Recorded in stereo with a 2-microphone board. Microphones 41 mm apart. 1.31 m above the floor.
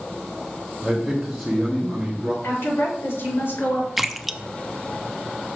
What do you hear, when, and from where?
0.8 s a man speaking: centre (ahead or behind), 1.3 m; by 2.3 s 10° right (ahead or behind), 2.5 m
2.4 s a woman speaking: 80° left, 4 m
4.0 s a splash: centre (ahead or behind), 0.5 m